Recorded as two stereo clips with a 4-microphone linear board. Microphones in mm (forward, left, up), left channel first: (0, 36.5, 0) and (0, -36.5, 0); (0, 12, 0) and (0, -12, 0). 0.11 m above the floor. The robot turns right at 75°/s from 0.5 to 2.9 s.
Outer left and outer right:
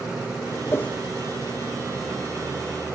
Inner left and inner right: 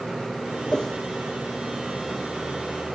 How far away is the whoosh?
About 1.4 m.